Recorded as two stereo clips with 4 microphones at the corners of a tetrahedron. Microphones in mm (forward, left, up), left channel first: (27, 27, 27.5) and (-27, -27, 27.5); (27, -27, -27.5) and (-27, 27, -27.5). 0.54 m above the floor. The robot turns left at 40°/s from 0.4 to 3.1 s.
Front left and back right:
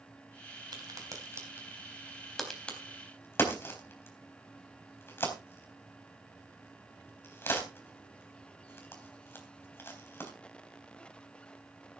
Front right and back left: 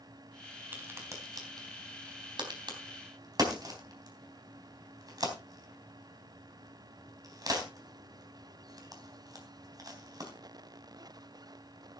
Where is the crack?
160° right, 3.5 m; by 10.3 s 105° left, 3.5 m.